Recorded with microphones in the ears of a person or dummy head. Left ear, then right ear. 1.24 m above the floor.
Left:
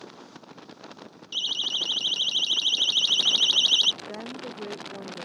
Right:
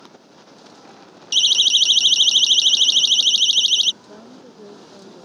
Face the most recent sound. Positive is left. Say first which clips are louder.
# left 5 dB
turn(degrees=60)  # may be behind; listen again after turning